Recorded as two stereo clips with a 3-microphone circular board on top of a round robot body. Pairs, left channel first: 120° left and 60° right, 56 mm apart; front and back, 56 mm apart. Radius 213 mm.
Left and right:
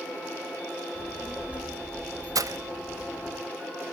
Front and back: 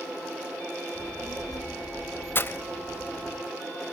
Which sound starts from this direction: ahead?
A child speaking, at 0.9 s.